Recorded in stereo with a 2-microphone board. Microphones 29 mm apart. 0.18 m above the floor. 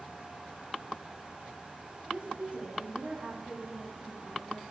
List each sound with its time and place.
2.1 s a woman speaking: 35° right (ahead or behind), 10 m